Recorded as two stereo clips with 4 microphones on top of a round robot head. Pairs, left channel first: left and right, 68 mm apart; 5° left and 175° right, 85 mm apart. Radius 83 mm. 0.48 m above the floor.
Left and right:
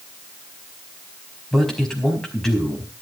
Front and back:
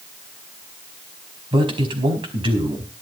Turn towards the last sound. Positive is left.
turn(degrees=175)